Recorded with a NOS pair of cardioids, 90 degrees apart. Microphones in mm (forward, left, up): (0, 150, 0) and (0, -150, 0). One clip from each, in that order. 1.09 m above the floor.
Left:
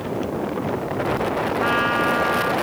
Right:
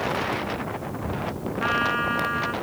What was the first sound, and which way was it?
A trumpet, 10° left.